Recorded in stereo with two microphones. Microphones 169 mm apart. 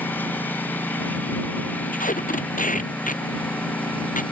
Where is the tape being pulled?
50° left (ahead or behind).